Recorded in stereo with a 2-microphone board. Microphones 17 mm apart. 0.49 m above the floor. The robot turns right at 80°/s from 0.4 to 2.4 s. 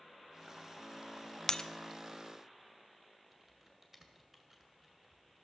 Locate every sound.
1.5 s breaking glass: 25° left (ahead or behind), 0.5 m; by 1.7 s 35° left (ahead or behind), 0.5 m
3.3 s typing on a keyboard: 15° right (ahead or behind), 2 m